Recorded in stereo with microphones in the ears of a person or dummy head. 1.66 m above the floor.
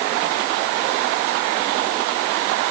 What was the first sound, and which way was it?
Only background noise.